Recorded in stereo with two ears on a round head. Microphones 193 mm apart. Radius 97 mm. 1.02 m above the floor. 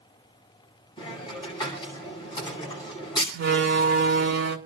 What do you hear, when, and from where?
1.0 s a hiss: 20° left (ahead or behind), 9.5 m
3.3 s a door slam: 50° right (ahead or behind), 2.5 m